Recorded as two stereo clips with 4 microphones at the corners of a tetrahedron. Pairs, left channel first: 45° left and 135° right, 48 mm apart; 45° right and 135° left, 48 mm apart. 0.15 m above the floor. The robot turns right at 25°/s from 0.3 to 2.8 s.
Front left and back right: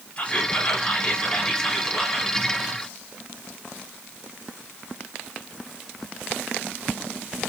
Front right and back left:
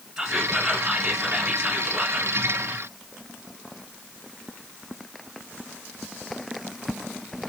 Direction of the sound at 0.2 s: 55° left.